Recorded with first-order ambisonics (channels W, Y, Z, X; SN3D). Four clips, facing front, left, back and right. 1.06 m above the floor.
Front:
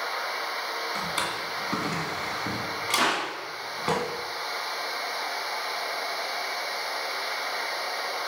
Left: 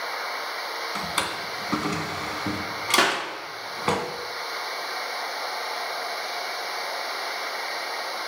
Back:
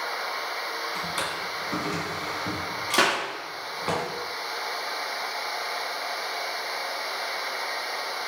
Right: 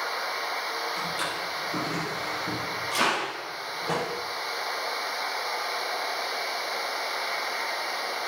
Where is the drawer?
80° left, 2 m.